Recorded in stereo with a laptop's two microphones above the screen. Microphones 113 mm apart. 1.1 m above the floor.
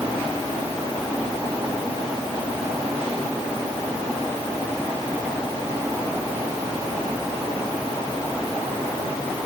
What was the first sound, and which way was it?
Only background noise.